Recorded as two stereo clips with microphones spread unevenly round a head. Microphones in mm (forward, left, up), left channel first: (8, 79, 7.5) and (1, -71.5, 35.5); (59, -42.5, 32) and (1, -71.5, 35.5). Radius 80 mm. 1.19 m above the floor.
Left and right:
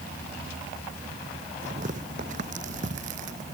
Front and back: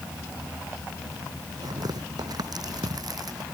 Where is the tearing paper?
135° right.